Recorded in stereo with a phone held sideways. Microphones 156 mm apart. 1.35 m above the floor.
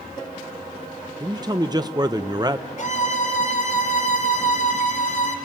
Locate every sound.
1.2 s a man speaking: 25° right (ahead or behind), 0.7 m
2.8 s a violin: 50° left (ahead or behind), 1.5 m